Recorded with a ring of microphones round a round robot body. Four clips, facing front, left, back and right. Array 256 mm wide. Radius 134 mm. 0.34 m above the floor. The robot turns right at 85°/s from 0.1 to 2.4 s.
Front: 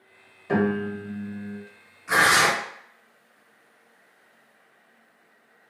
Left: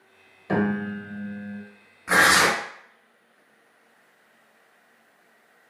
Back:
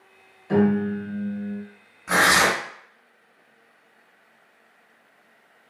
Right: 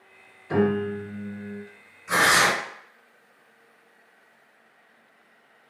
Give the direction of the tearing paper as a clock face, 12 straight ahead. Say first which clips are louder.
Left 2 dB, back 1 dB; 8 o'clock.